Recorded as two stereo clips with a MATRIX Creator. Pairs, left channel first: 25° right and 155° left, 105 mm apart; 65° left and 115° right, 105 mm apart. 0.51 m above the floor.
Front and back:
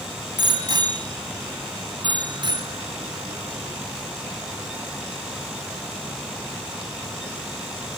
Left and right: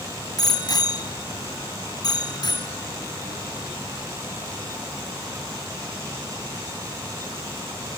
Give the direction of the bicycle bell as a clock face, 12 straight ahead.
8 o'clock.